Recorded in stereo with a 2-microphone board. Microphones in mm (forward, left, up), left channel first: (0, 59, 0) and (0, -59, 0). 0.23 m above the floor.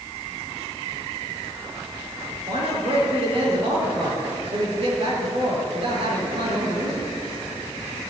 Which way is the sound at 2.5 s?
55° right (ahead or behind).